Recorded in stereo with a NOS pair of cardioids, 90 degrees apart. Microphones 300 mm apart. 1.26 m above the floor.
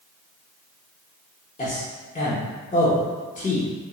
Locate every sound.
1.6 s a man speaking: 25° left, 0.7 m